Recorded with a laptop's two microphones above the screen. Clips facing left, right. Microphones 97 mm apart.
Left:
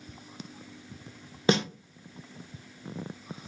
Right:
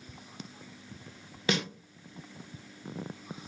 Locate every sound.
1.5 s a snare drum: 30° left (ahead or behind), 0.6 m